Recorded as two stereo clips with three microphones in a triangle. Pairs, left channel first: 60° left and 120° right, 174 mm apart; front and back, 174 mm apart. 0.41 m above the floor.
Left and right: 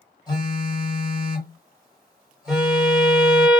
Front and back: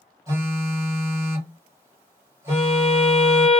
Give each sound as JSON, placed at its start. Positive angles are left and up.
{"t": 0.3, "sound": "a phone buzzing", "azimuth_deg": 115, "distance_m": 1.5}
{"t": 2.5, "sound": "a violin", "azimuth_deg": -35, "distance_m": 0.7}